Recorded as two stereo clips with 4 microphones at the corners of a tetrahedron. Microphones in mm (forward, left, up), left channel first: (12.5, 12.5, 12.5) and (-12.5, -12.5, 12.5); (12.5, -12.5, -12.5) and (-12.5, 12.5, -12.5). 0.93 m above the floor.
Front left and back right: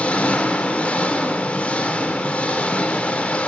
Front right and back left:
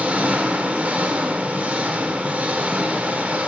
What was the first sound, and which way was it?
An engine running, 95° left.